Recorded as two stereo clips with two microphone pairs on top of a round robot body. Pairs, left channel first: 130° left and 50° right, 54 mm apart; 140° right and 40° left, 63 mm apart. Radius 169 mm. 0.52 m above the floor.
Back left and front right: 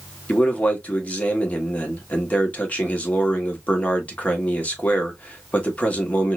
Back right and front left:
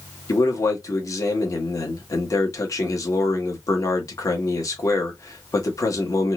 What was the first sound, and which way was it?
A man speaking, 165° right.